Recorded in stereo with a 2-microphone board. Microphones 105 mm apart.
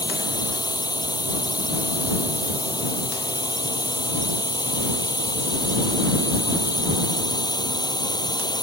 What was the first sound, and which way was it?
A drone, 40° left (ahead or behind).